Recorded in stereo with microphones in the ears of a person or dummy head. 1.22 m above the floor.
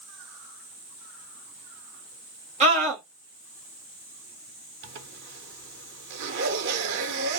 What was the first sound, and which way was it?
A scream, 35° right (ahead or behind).